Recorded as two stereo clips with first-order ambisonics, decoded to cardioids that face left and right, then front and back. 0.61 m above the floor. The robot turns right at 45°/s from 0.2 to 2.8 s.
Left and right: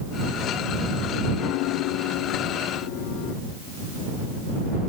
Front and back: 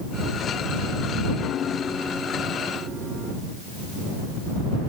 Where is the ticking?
No ticking in this recording.